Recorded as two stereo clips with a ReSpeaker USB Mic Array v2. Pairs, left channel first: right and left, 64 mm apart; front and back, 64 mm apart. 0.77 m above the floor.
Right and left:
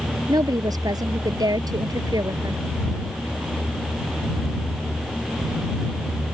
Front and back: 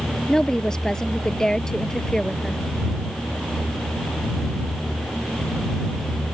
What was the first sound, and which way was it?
A woman speaking, 80° left.